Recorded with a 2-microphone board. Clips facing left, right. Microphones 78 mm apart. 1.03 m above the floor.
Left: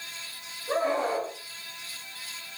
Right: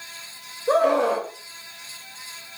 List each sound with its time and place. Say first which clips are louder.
0.7 s a scream: right 8 dB; 90° right, 3.5 m